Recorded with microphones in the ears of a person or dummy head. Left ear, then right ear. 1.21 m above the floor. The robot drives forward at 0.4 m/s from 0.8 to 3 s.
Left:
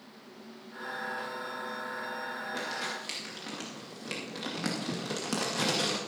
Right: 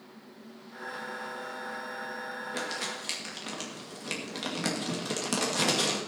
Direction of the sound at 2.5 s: 15° right (ahead or behind).